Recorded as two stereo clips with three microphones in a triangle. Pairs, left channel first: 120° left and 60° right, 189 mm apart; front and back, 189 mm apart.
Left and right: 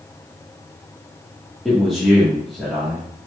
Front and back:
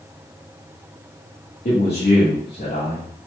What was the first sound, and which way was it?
A man speaking, 30° left.